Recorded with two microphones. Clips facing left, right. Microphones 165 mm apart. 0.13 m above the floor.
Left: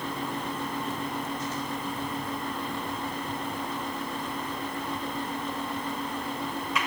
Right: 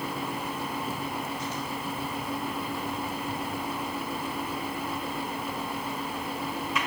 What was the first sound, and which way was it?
Only background noise.